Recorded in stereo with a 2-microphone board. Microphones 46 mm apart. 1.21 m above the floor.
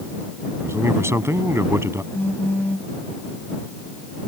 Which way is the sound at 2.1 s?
45° left (ahead or behind).